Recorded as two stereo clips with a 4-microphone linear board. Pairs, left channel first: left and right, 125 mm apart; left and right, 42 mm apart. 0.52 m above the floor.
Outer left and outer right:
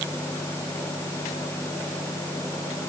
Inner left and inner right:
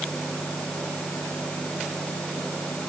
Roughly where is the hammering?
I don't hear hammering.